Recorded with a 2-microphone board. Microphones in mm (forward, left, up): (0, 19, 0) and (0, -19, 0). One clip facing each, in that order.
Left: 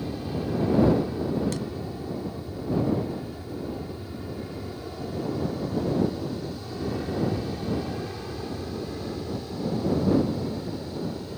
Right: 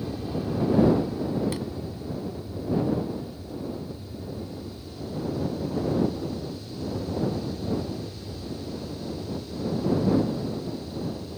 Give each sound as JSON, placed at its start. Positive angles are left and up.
{"t": 0.0, "sound": "an aircraft", "side_deg": 15}
{"t": 1.5, "sound": "a thud", "side_deg": -20}